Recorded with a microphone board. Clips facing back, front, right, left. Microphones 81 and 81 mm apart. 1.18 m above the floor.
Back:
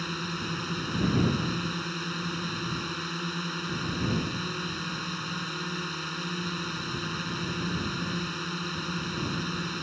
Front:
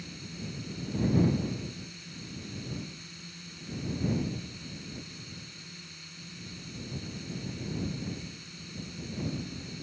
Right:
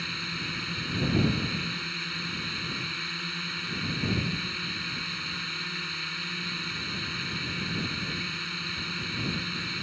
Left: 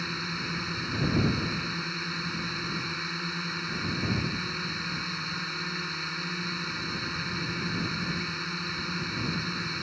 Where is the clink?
No clink in this recording.